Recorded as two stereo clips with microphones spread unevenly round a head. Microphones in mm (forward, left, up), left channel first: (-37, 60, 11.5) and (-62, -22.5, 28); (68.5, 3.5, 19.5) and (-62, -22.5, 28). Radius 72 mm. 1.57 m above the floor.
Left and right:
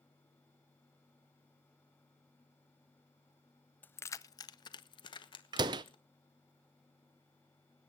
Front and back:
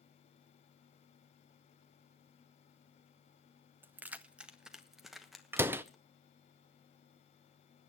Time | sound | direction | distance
3.8 | keys jangling | 145° left | 0.5 m
5.5 | a door slam | 100° right | 0.6 m